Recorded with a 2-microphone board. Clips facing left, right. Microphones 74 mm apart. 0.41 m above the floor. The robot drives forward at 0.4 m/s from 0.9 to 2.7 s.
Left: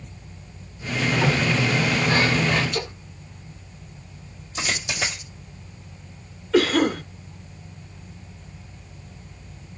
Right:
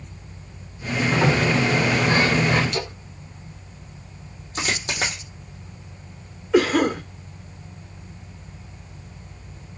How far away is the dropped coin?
About 2.5 m.